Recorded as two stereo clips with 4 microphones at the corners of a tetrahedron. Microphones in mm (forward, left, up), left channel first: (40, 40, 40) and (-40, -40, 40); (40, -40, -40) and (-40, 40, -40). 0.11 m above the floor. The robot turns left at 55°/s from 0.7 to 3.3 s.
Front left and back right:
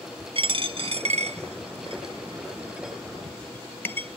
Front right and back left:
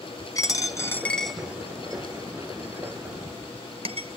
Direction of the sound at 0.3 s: 100° right.